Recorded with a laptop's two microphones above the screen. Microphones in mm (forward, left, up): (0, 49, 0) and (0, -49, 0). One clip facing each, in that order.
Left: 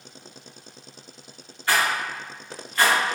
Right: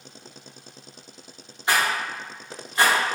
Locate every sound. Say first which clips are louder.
1.7 s a rattle: even; 20° right (ahead or behind), 0.7 m